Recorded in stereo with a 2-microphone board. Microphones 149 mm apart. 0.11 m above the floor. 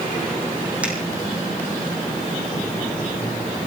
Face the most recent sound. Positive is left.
turn(degrees=-10)  # may be behind; listen again after turning